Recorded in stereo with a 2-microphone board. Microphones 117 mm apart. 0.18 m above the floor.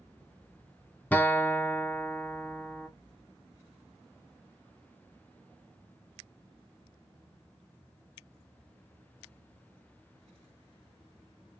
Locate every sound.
1.1 s a guitar: 15° left (ahead or behind), 0.7 m